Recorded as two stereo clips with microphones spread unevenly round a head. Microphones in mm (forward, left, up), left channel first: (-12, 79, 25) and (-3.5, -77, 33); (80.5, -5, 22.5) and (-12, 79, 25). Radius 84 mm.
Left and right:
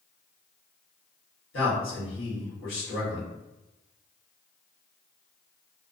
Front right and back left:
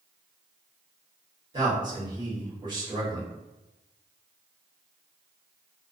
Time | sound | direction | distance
1.5 | a man speaking | 85° left | 1.3 m